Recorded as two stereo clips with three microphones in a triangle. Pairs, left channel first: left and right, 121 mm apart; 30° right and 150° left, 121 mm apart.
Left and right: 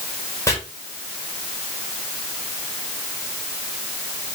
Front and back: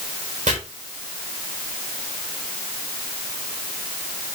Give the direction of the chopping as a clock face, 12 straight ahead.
7 o'clock.